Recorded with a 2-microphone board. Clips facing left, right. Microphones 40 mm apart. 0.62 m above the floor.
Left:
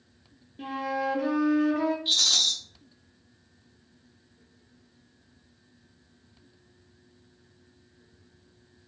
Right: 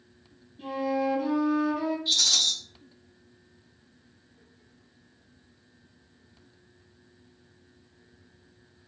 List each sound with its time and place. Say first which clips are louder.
0.6 s a flute: right 2 dB; 70° left (ahead or behind), 0.5 m
2.0 s a rattle: left 1 dB; 40° left (ahead or behind), 1.9 m